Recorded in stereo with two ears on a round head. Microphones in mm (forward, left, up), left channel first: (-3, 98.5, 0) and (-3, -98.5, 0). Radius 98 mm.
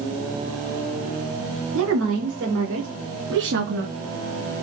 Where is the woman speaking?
70° right (ahead or behind), 4.5 m; by 3.9 s 50° right (ahead or behind), 3.5 m.